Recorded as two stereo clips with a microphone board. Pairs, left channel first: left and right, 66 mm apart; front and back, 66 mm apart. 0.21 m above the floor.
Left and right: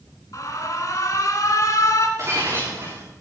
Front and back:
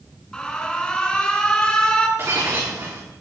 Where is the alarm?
70° left, 1.9 m.